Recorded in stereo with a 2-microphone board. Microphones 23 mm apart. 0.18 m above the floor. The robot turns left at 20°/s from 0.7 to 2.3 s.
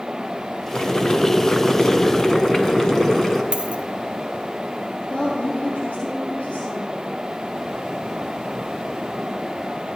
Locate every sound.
0.7 s boiling: 70° left, 1.3 m; by 3.4 s 35° left, 1.3 m
3.5 s a dropped coin: 55° right (ahead or behind), 1.0 m
5.1 s a woman speaking: 80° left, 6.5 m